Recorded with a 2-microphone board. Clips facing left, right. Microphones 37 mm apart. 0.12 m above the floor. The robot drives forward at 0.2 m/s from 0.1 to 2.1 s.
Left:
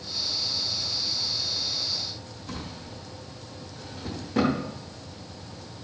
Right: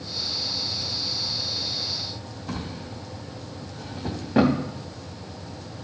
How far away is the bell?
I don't hear a bell.